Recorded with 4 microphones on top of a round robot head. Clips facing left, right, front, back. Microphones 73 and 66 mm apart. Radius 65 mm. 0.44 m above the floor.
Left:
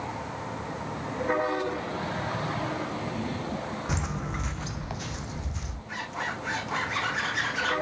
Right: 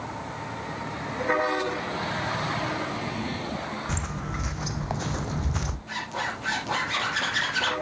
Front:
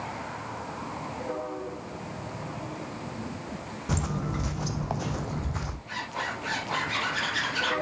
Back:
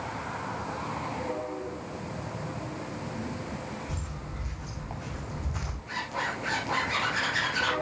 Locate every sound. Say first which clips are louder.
3.9 s footsteps: even, front 9 dB; 10° left, 1.2 m; by 5.8 s 75° right, 1.0 m
5.9 s a zipper: right 1 dB, back 2 dB; 105° right, 5 m